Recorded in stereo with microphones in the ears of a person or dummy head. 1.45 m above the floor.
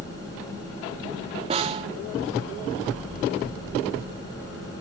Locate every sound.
1.5 s a snare drum: 30° right (ahead or behind), 1.3 m